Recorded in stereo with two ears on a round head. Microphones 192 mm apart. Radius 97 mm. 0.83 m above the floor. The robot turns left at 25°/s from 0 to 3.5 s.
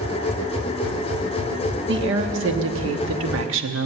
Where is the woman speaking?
60° right, 1.2 m; by 3.9 s 100° right, 1.2 m.